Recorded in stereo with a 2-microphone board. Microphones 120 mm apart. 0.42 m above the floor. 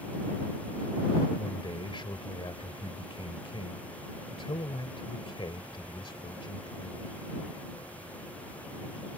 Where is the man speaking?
45° left (ahead or behind).